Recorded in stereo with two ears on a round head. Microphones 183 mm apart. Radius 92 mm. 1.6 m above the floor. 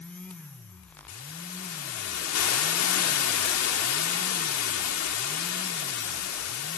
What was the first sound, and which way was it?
A hiss, 85° left.